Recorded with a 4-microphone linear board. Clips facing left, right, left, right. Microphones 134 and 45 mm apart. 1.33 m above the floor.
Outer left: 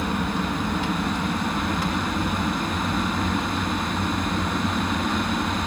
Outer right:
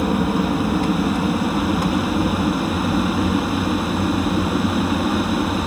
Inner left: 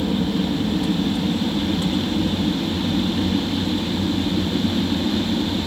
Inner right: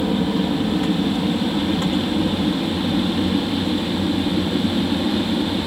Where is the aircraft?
45° right (ahead or behind); by 5.7 s 40° right (ahead or behind).